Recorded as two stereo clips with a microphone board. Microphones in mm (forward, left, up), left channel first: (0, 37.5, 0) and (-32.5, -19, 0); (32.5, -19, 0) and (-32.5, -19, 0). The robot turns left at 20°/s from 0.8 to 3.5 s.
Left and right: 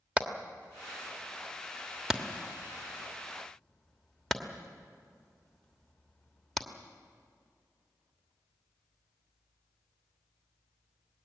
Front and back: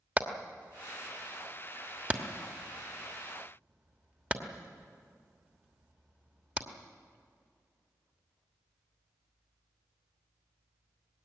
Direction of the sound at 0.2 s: 165° right.